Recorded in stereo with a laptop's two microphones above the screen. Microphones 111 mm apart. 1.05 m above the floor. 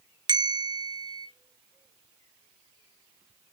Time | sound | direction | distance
0.3 | a bell | 40° right (ahead or behind) | 0.5 m